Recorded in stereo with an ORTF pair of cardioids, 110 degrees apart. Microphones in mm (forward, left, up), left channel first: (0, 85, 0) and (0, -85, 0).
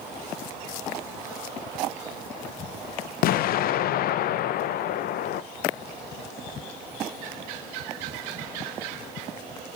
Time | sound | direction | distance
3.2 | an explosion | 60° left | 0.6 m